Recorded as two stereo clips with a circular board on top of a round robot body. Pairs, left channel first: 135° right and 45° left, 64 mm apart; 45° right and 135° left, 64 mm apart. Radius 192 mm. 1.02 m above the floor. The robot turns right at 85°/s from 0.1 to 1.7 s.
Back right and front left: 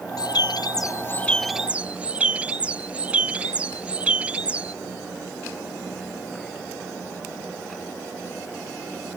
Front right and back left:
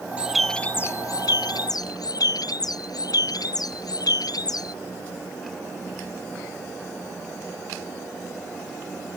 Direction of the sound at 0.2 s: 155° right.